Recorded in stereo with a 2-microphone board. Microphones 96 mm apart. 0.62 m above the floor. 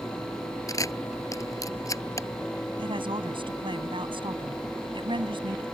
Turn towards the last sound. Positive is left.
turn(degrees=-60)  # may be behind; listen again after turning